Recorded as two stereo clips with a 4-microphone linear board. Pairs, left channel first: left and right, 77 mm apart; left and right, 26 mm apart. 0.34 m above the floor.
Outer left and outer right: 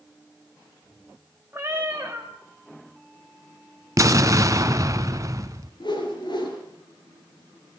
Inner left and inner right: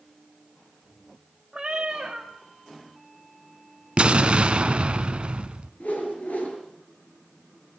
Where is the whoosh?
70° left (ahead or behind), 5 m.